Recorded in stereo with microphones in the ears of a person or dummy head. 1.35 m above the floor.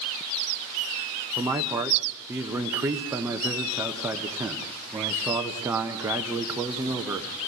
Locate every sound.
1.4 s a man speaking: 20° right (ahead or behind), 1.0 m